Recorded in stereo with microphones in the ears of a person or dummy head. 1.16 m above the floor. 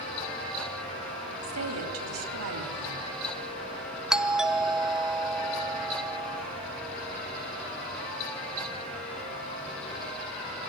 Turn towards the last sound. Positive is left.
turn(degrees=-5)  # may be behind; listen again after turning